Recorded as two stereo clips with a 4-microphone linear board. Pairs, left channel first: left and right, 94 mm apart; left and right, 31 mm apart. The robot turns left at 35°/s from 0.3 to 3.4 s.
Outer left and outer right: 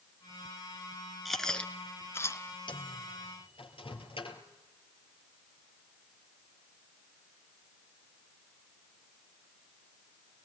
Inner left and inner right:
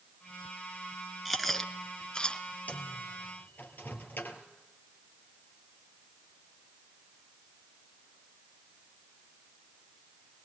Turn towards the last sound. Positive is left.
turn(degrees=75)  # may be behind; listen again after turning